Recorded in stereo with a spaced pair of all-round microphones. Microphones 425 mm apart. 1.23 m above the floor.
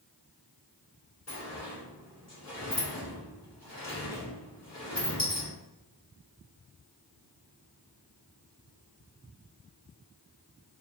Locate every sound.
1.3 s a sliding door: 35° left (ahead or behind), 1.6 m